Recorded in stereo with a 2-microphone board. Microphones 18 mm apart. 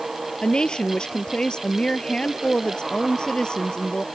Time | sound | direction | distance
0.4 | a woman speaking | 50° left (ahead or behind) | ?